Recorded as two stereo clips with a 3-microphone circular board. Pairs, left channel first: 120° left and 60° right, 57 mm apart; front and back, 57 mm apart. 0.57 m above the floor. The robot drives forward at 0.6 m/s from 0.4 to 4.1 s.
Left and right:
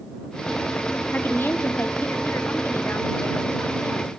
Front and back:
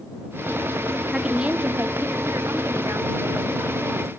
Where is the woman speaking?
105° left, 0.8 m; by 4.1 s 170° left, 2 m.